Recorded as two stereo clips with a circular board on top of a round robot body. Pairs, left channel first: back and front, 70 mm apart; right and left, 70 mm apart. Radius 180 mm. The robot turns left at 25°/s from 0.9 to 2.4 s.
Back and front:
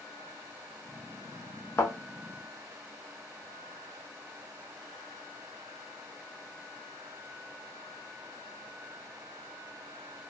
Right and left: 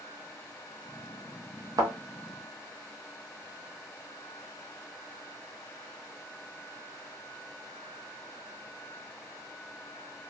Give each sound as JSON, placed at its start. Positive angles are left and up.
{"t": 1.8, "sound": "a thud", "azimuth_deg": 125, "distance_m": 0.7}